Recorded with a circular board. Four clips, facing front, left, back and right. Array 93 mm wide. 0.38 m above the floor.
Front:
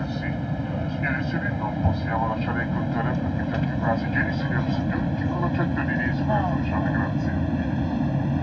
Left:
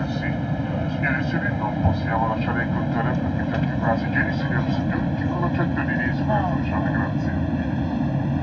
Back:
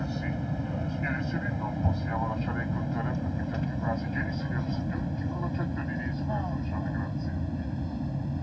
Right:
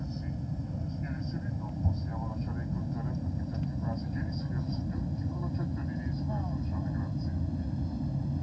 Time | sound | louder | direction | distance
0.0 | an aircraft | left 13 dB, front 4 dB | 75° left | ?